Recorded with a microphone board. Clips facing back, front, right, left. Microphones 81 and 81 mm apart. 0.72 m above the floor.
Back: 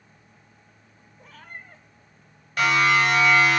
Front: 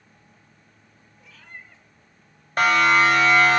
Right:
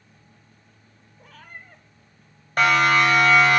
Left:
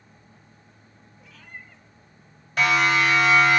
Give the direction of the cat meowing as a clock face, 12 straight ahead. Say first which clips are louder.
Back 2 dB, right 1 dB; 4 o'clock.